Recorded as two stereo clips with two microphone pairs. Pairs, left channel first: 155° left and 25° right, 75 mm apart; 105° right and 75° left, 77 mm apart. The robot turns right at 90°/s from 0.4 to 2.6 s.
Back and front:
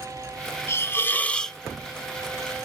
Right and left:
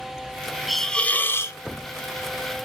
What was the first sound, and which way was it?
A hiss, 160° left.